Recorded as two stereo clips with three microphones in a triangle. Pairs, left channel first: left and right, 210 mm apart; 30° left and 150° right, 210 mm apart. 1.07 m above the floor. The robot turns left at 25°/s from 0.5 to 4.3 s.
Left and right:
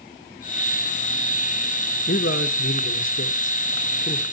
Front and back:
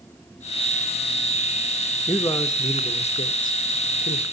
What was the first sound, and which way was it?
A man speaking, 110° left.